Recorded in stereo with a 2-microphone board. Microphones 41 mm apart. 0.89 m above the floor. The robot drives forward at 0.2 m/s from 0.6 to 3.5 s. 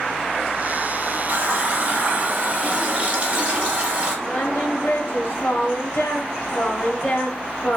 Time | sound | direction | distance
1.3 | a running tap | 45° right (ahead or behind) | 0.9 m
4.2 | singing | 55° left (ahead or behind) | 1.0 m